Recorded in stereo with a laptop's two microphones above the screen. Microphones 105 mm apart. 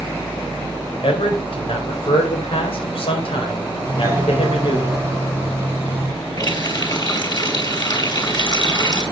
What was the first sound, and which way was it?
A man speaking, 65° left (ahead or behind).